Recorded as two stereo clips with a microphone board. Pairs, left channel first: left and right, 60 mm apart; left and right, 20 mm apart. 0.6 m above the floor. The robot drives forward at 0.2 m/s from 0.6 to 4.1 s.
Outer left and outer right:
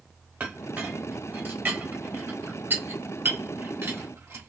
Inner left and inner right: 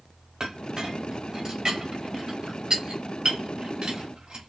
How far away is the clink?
About 1.6 m.